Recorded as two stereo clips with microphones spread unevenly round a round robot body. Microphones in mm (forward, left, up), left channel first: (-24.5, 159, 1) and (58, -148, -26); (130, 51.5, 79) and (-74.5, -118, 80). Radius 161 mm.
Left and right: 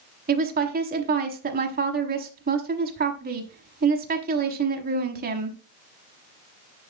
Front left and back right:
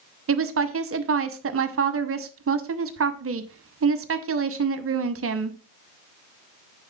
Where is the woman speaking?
125° right, 1.0 m.